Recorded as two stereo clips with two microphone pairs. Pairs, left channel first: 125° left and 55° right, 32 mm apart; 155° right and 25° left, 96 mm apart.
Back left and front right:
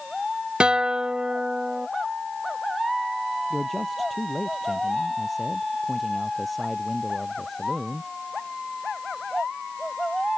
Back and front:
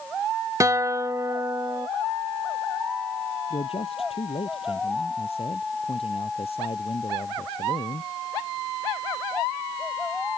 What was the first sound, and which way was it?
A guitar, 10° right.